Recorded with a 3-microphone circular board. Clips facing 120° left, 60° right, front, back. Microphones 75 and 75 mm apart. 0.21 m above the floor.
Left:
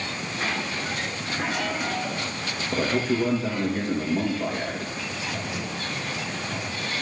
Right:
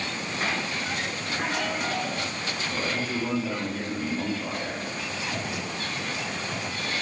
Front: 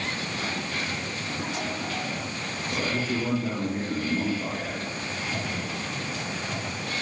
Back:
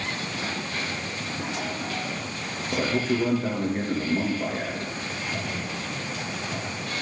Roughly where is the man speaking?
Behind left.